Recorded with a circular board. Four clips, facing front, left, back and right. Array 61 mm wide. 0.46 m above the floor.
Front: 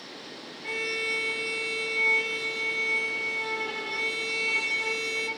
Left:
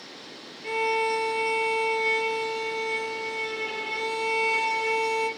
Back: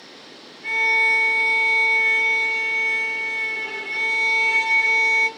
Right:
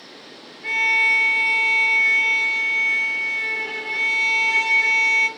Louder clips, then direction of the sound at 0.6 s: Right 5 dB, back 11 dB; 125° right.